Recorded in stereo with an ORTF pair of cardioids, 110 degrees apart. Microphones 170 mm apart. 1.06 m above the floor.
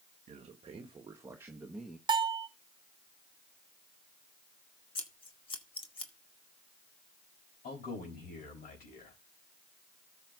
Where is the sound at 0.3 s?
45° right, 1.6 m; by 2.0 s straight ahead, 1.4 m.